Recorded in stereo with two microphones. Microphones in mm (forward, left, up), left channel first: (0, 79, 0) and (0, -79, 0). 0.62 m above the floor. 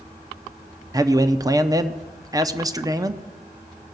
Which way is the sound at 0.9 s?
25° right (ahead or behind).